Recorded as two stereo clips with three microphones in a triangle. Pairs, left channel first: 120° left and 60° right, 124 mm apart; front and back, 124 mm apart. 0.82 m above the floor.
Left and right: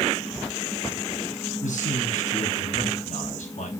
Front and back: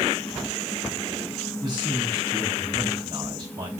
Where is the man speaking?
125° left, 5 m.